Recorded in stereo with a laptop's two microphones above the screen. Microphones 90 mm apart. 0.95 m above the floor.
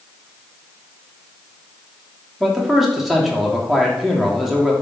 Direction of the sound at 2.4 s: Centre (ahead or behind).